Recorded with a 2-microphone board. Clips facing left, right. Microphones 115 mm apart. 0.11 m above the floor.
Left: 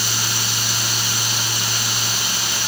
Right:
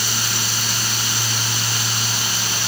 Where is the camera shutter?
No camera shutter in this recording.